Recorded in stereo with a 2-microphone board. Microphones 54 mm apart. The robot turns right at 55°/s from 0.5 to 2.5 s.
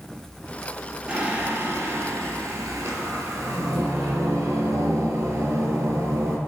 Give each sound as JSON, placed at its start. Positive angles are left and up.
{"t": 1.1, "sound": "singing", "azimuth_deg": -160, "distance_m": 0.6}